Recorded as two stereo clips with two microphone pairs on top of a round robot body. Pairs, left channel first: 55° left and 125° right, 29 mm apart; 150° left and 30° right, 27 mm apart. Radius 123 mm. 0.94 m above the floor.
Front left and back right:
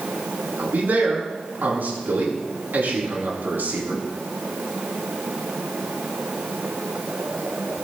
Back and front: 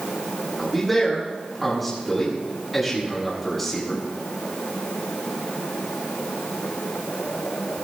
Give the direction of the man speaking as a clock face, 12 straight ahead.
4 o'clock.